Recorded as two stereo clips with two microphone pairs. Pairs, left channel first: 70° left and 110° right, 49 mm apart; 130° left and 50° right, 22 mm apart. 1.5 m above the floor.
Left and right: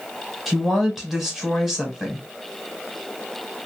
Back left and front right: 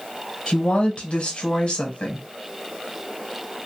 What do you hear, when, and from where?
0.5 s a woman speaking: 170° left, 1.0 m